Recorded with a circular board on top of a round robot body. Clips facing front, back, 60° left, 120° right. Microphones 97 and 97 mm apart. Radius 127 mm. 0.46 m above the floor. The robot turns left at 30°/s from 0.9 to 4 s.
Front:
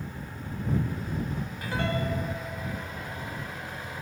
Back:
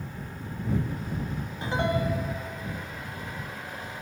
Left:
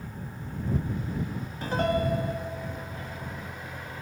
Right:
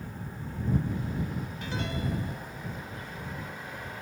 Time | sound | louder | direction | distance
1.6 | a piano | back 4 dB, left 10 dB | 115° left | ?